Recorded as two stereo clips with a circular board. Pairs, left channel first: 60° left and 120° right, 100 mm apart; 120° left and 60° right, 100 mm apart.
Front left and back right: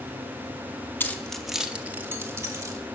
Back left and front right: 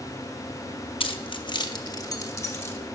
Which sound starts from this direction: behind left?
Keys jangling, at 1.0 s.